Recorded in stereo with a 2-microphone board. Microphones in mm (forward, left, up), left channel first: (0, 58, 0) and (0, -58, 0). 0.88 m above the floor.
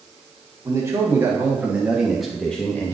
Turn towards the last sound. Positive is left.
turn(degrees=20)  # may be behind; listen again after turning